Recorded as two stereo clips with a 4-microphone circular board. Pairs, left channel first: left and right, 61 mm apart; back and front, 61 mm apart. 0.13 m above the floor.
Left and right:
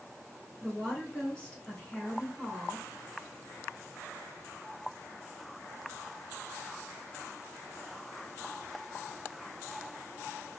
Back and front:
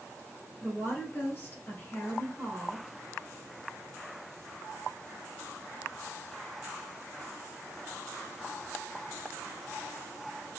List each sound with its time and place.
0.6 s a woman speaking: 150° left, 1.4 m